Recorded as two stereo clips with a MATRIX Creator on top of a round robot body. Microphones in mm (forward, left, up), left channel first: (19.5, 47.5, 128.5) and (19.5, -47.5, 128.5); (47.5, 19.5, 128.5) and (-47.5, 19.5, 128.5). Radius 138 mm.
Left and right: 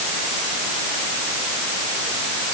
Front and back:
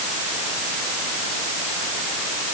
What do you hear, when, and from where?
Only background noise.